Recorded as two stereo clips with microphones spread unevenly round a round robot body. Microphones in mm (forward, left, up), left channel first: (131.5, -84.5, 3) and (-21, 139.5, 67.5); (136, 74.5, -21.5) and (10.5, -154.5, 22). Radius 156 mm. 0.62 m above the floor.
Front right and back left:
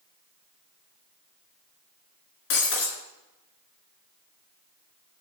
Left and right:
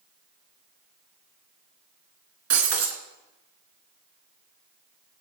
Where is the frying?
No frying in this recording.